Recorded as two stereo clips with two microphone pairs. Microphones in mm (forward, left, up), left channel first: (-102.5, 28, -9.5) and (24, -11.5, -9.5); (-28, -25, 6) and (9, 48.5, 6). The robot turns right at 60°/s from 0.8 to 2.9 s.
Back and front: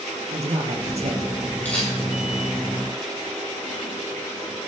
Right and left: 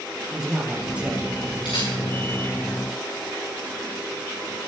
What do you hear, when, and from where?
0.3 s a man speaking: 20° right, 2.5 m; by 1.4 s 15° left, 2.5 m
1.6 s a camera shutter: 120° right, 6.5 m; by 1.9 s 105° right, 6.5 m